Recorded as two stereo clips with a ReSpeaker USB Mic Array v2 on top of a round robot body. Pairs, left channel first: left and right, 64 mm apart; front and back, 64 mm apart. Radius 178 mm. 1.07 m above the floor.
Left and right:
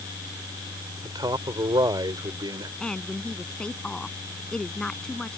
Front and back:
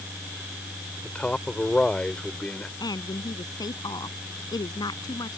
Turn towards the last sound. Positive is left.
turn(degrees=15)